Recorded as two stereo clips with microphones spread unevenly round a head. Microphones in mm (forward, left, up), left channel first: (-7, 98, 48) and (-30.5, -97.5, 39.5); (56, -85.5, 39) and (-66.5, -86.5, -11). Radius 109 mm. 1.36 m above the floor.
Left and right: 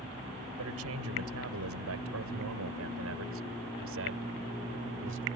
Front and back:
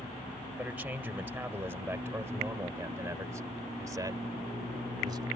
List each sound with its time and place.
0.6 s a man speaking: 100° right; by 5.3 s 120° right